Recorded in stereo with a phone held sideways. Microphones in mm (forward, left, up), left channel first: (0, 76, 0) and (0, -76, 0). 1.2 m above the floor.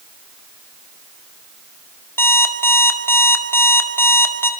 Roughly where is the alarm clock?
Centre.